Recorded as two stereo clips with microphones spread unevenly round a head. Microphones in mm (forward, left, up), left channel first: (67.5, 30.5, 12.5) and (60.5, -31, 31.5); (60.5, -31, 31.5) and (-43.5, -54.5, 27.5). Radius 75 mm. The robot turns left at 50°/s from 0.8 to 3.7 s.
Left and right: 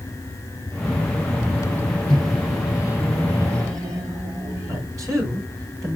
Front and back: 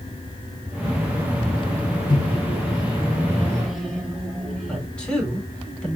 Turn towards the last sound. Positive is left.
turn(degrees=-70)